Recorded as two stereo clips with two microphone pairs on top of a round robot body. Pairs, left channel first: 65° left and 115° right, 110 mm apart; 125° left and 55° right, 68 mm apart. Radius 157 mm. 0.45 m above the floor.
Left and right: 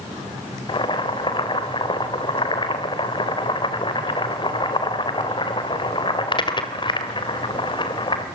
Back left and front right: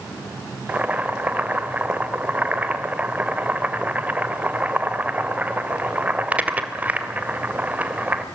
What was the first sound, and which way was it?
Boiling, 15° left.